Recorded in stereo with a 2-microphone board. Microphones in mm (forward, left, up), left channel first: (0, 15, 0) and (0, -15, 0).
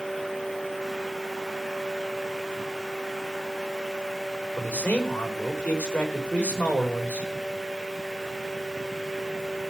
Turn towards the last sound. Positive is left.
turn(degrees=85)